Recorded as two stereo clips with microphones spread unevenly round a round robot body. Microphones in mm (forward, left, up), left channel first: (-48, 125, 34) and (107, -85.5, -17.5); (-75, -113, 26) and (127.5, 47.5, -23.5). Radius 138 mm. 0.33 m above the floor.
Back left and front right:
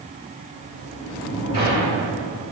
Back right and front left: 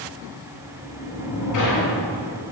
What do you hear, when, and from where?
0.5 s a sliding door: 125° right, 2 m